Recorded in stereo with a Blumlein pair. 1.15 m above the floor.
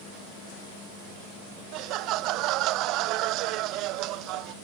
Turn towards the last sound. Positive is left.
turn(degrees=-40)